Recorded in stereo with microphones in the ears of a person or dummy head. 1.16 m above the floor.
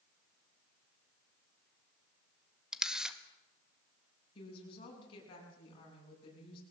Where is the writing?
I don't hear writing.